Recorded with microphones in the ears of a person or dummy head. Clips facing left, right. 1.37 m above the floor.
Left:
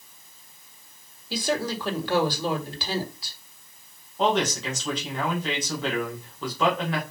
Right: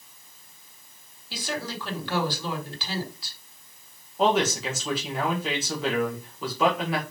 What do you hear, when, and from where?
1.3 s a woman speaking: 35° left (ahead or behind), 2.5 m
4.2 s a man speaking: 5° right (ahead or behind), 1.6 m